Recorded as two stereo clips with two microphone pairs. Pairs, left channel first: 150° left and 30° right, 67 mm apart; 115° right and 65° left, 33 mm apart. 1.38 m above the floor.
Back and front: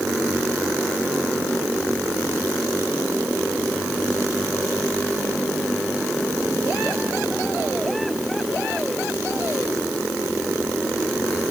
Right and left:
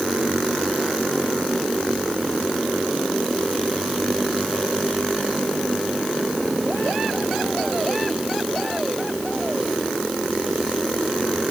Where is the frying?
I don't hear frying.